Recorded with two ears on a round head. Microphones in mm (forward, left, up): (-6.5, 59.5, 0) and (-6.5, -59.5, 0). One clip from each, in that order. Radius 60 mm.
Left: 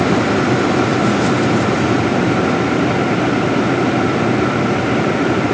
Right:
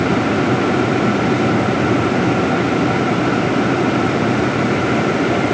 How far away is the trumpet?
No trumpet in this recording.